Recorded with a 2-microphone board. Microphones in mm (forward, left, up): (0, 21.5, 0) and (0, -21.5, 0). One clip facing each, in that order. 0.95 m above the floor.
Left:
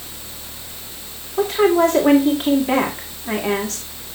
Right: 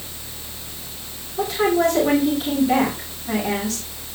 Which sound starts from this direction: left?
A woman speaking, at 1.4 s.